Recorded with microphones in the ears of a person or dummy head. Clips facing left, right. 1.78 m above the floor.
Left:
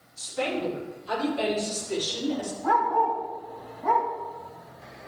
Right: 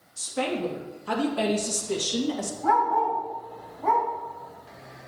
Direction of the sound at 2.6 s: 55° right (ahead or behind).